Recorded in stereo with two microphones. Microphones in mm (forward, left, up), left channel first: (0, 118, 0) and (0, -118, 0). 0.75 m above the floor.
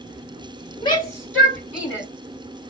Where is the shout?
20° left (ahead or behind), 2 m; by 2.1 s 20° right (ahead or behind), 1.7 m.